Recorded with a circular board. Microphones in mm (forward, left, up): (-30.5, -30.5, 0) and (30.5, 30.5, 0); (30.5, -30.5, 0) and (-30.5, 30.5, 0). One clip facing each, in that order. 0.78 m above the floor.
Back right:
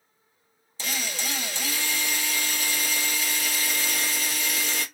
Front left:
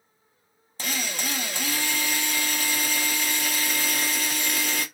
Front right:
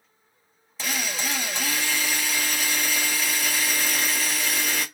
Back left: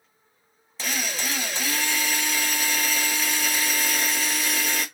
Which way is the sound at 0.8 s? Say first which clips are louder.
Front left 2 dB, even; 45° left.